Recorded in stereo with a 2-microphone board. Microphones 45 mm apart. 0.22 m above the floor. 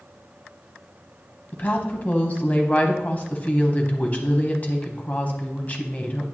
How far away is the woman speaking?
About 1.3 m.